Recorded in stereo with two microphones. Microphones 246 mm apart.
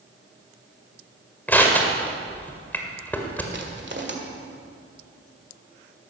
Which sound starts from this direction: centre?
Crushing, at 1.5 s.